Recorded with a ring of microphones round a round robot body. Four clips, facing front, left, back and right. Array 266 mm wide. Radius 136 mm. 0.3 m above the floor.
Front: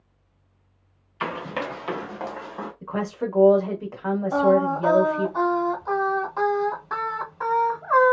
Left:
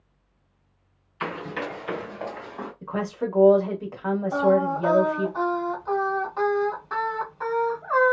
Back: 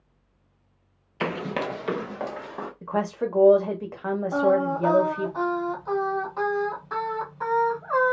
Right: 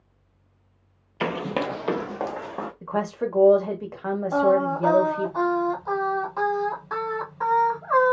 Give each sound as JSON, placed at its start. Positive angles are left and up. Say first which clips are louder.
{"t": 1.2, "sound": "running footsteps", "louder": "right 5 dB, back 1 dB", "azimuth_deg": -130, "distance_m": 0.6}
{"t": 2.8, "sound": "a woman speaking", "louder": "right 1 dB, back 2 dB", "azimuth_deg": -135, "distance_m": 1.3}
{"t": 4.3, "sound": "singing", "louder": "right 1 dB, front 3 dB", "azimuth_deg": -45, "distance_m": 1.5}